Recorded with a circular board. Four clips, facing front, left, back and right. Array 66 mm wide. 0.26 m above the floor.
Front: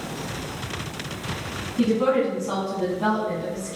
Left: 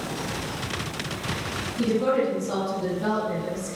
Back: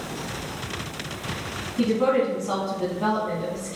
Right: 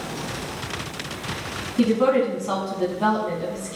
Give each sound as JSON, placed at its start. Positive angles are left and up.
{"t": 1.8, "sound": "a woman speaking", "azimuth_deg": -95, "distance_m": 1.7}